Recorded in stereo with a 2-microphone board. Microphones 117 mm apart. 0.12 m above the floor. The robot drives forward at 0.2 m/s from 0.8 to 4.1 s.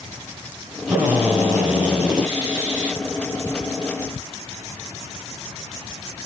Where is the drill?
10° right (ahead or behind), 3.5 m.